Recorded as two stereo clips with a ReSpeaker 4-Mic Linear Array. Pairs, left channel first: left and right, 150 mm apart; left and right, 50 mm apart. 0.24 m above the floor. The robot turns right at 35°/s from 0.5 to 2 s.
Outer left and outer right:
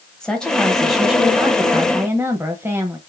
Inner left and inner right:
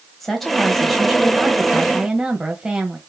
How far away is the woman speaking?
About 1.0 m.